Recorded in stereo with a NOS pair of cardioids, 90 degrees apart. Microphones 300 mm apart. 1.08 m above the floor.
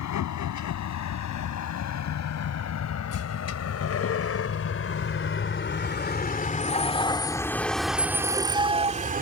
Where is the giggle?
I don't hear a giggle.